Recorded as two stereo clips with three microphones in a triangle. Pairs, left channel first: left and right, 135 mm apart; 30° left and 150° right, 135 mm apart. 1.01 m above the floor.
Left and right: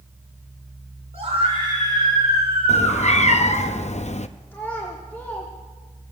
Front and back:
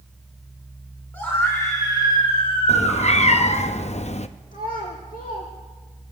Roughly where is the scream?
Ahead right.